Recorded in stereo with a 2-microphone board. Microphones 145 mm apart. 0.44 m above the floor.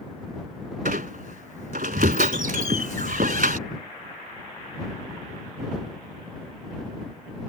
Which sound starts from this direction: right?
A squeak, at 0.8 s.